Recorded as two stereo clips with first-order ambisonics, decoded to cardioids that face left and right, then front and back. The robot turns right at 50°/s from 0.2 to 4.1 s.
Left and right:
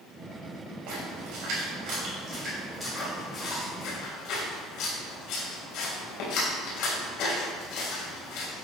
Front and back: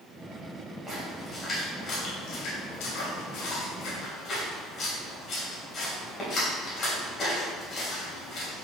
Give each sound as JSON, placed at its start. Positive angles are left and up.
{"t": 0.9, "sound": "a splash", "azimuth_deg": -100, "distance_m": 4.0}